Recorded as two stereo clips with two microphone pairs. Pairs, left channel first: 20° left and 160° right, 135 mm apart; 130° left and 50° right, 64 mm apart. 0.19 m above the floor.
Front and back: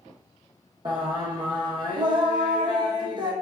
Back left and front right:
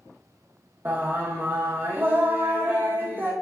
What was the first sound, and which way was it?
Singing, 105° right.